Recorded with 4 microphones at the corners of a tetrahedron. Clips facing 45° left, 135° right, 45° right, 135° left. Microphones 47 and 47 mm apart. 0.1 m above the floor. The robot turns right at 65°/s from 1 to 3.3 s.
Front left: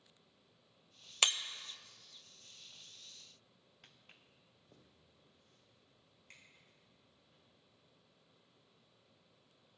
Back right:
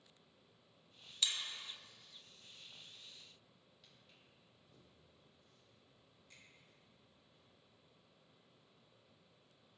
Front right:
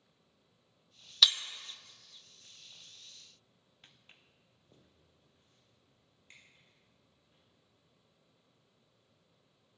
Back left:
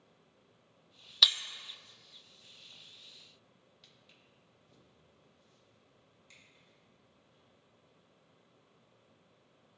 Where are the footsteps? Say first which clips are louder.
Front left 5 dB, front right 3 dB; 5° left, 1.1 m; by 7.4 s 15° left, 6 m.